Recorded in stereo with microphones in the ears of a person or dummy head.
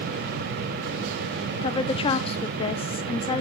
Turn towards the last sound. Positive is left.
turn(degrees=30)  # may be behind; listen again after turning